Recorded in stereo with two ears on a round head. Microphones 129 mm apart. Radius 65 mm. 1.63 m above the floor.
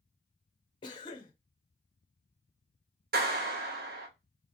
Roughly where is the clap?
Right.